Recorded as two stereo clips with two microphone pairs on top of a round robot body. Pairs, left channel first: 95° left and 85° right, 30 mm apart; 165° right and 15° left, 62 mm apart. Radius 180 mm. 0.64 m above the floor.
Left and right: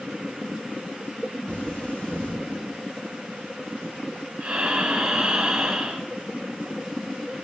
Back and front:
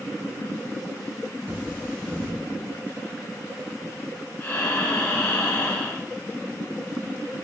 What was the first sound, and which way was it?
Cutlery clinking, 75° left.